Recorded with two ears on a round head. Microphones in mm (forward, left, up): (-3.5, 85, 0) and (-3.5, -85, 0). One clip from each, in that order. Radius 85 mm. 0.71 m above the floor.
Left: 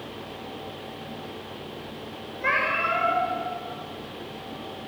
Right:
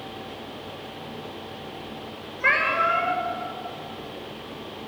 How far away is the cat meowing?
About 7 m.